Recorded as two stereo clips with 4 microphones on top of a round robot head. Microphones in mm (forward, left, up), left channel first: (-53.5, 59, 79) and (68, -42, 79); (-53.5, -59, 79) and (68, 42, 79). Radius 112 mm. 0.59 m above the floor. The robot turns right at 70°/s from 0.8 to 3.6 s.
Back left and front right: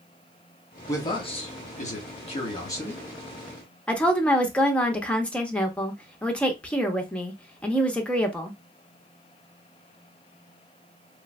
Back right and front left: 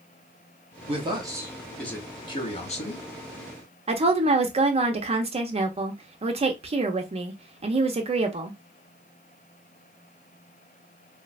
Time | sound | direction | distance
0.9 | a man speaking | 75° left | 1.1 m
3.9 | a woman speaking | 60° left | 0.7 m